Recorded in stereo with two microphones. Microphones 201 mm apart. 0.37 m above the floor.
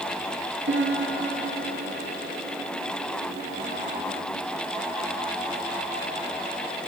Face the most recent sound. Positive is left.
turn(degrees=-80)